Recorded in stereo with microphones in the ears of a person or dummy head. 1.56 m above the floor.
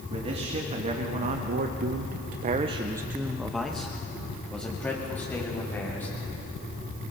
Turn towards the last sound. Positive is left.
turn(degrees=15)  # may be behind; listen again after turning